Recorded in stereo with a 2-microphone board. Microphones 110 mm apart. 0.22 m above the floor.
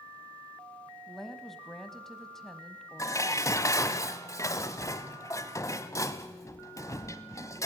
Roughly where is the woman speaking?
Centre.